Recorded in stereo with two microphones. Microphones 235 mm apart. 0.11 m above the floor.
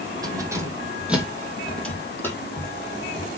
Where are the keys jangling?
15° right (ahead or behind), 3 m; by 3.3 s 20° left (ahead or behind), 3.5 m.